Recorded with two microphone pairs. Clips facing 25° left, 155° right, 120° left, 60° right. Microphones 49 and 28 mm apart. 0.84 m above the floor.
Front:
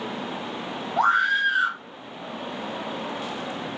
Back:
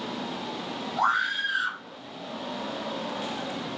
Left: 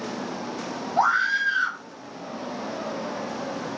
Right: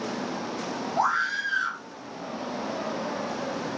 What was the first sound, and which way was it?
A scream, 65° left.